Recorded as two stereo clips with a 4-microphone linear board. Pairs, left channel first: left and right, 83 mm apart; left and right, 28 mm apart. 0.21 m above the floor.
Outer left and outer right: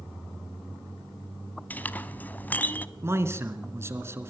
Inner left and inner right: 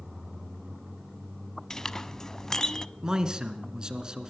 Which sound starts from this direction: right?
A man speaking, at 3.0 s.